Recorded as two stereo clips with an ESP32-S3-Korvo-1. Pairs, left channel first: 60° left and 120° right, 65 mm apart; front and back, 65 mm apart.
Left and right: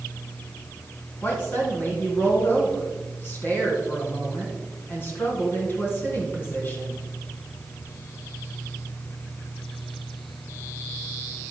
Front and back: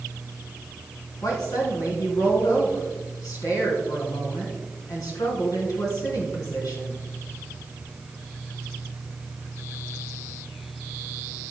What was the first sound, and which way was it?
A woman speaking, 5° left.